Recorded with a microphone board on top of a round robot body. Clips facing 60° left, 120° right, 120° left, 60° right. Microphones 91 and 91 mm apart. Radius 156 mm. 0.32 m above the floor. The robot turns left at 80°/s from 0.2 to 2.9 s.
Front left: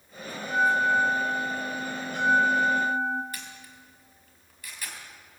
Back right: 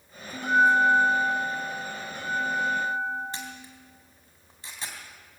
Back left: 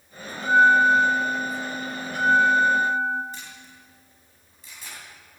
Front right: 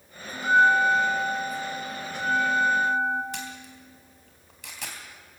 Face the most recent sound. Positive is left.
turn(degrees=-60)